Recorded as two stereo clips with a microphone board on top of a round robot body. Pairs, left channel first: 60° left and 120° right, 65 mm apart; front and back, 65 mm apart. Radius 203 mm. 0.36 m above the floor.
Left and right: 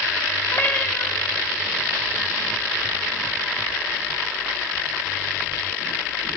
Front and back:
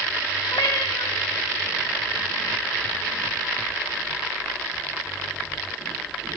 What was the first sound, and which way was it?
A cat meowing, straight ahead.